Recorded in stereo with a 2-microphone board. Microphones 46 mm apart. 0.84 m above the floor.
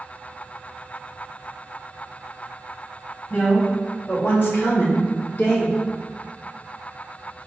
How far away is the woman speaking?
About 1.8 m.